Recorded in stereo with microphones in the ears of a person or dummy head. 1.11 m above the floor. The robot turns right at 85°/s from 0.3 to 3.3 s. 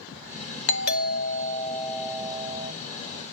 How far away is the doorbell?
About 0.7 m.